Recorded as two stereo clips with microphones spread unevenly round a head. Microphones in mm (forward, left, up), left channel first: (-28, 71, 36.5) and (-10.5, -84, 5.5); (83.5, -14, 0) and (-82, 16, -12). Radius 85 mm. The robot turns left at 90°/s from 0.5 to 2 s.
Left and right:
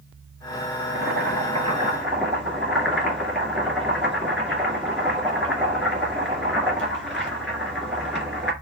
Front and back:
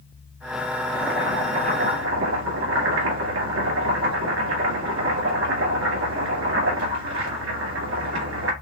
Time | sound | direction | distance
0.8 | boiling | 70° right | 2.5 m